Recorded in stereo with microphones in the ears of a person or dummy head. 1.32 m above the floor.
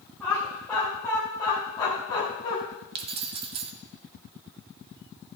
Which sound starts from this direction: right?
Keys jangling, at 3.0 s.